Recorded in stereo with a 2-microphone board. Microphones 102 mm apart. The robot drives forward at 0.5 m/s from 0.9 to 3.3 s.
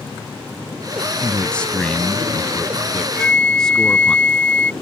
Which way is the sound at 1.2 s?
10° left (ahead or behind).